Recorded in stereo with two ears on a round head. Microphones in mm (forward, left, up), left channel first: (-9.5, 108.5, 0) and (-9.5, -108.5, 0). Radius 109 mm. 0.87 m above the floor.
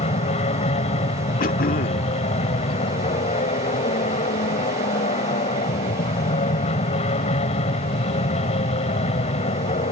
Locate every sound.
0.0 s an aircraft: 25° left (ahead or behind)
1.4 s throat clearing: 35° left (ahead or behind)